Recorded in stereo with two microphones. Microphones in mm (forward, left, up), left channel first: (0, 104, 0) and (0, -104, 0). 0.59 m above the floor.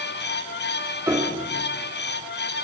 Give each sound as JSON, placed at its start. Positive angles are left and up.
{"t": 1.1, "sound": "a piano", "side_deg": -15, "distance_m": 1.3}